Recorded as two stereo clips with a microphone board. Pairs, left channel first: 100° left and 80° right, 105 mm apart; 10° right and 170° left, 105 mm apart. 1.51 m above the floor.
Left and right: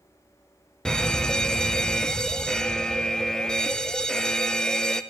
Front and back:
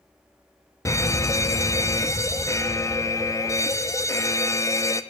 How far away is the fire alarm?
About 0.7 m.